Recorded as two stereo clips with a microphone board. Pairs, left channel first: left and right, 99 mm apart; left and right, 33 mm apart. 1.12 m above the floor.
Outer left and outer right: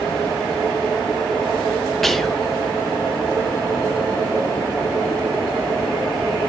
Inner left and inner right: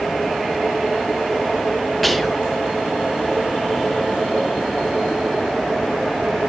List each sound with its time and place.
2.0 s whispering: centre (ahead or behind), 1.1 m